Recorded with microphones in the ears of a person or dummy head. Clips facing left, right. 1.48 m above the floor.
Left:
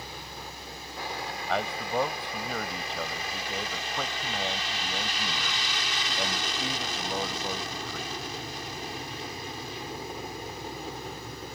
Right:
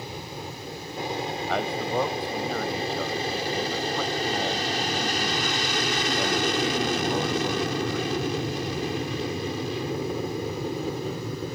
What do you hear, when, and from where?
0.0 s an aircraft: 20° right (ahead or behind); by 11.6 s 70° right (ahead or behind)
1.5 s a man speaking: 5° right (ahead or behind)